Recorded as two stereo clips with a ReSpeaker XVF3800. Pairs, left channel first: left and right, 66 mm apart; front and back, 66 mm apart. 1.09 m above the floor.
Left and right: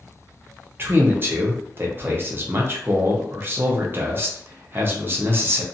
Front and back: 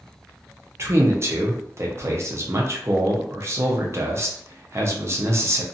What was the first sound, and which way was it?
A man speaking, 140° right.